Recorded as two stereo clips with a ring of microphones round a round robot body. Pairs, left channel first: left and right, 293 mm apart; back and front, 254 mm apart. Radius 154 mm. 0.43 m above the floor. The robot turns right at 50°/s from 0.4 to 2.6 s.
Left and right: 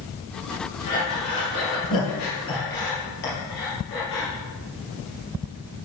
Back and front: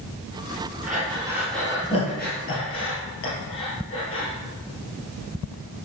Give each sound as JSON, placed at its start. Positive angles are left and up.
{"t": 0.9, "sound": "breathing", "azimuth_deg": 60, "distance_m": 2.5}